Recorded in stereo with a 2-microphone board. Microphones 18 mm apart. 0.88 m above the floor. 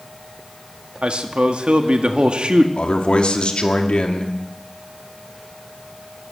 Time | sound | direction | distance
1.0 | a man speaking | 65° right (ahead or behind) | 1.5 m
2.8 | a man speaking | 60° left (ahead or behind) | 2.0 m